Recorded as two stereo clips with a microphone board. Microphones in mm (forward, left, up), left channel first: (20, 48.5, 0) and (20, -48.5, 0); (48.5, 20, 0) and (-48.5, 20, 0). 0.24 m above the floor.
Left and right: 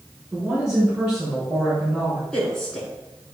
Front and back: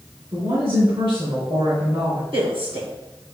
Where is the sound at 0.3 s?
160° right, 3 m.